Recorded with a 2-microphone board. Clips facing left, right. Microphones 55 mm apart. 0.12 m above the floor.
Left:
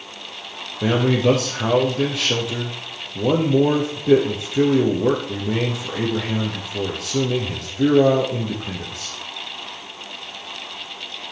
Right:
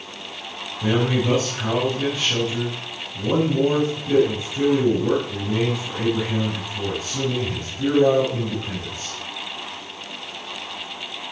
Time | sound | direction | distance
0.8 | a man speaking | 65° left (ahead or behind) | 3 m